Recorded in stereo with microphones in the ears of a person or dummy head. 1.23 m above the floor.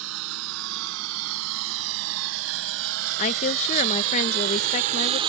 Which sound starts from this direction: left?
A woman speaking, at 3.2 s.